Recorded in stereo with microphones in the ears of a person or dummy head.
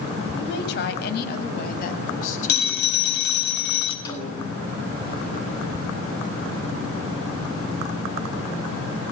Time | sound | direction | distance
0.3 | a woman speaking | 70° left (ahead or behind) | 5.5 m
2.5 | a phone ringing | 65° left (ahead or behind) | 6 m
4.0 | a snare drum | 25° left (ahead or behind) | 8.5 m